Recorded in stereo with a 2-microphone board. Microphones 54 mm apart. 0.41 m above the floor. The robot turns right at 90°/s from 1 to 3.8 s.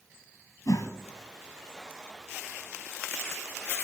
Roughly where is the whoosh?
Left.